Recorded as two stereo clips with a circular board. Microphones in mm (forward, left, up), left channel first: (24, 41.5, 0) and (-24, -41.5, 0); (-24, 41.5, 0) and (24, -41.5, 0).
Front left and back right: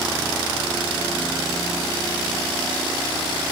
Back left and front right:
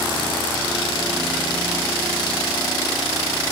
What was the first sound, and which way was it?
Only background noise.